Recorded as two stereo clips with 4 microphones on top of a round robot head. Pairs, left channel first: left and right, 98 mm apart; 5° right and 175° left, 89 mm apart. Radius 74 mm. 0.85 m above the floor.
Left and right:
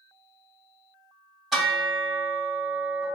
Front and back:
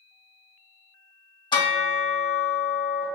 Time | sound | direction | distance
1.5 | a bell | straight ahead | 1.4 m